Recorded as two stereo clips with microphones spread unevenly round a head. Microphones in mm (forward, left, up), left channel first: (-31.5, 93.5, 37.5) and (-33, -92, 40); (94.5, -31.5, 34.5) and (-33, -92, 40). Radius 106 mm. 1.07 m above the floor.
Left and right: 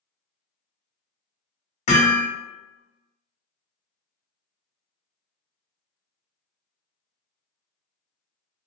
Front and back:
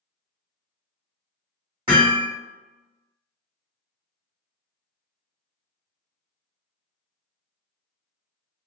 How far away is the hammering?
About 1.5 m.